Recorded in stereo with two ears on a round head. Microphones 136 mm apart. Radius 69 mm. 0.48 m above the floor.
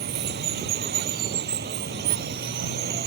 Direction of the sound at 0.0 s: 70° right (ahead or behind).